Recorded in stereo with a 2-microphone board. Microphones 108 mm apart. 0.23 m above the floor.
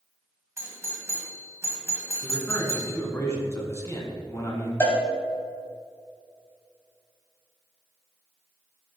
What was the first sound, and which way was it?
A doorbell, 25° right (ahead or behind).